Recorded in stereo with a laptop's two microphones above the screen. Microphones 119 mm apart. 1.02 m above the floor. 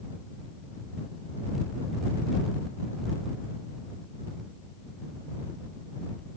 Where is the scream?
I don't hear a scream.